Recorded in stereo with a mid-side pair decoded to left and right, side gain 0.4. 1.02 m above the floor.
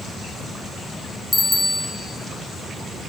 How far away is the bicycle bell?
About 4 m.